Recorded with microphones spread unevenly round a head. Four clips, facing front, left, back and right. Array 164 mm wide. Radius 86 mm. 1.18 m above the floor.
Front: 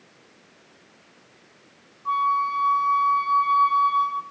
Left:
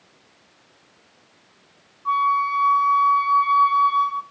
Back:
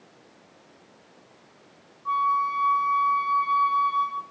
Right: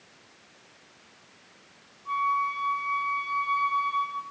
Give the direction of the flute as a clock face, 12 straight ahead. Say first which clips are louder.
Left 7 dB, front 1 dB; 10 o'clock.